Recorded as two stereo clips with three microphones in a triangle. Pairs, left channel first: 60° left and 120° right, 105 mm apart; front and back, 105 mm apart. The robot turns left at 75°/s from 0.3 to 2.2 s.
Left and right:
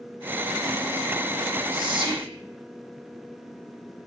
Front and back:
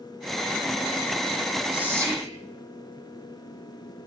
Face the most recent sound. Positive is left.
turn(degrees=-135)